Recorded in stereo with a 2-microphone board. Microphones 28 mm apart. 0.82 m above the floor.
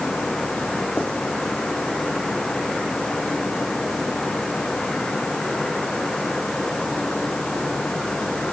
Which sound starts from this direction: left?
Writing, at 1.0 s.